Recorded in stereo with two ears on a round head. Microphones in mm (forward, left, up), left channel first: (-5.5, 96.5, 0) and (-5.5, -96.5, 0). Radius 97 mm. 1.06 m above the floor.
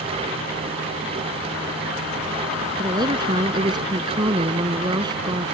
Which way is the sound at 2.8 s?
20° right (ahead or behind).